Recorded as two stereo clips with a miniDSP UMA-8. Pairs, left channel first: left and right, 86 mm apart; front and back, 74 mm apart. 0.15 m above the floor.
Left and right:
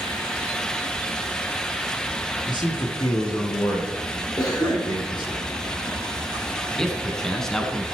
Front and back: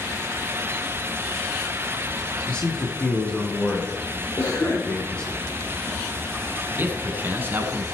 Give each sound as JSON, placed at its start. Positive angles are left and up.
{"t": 2.5, "sound": "a man speaking", "azimuth_deg": 75, "distance_m": 3.5}
{"t": 4.4, "sound": "a cough", "azimuth_deg": 50, "distance_m": 4.5}
{"t": 6.8, "sound": "a man speaking", "azimuth_deg": 170, "distance_m": 1.2}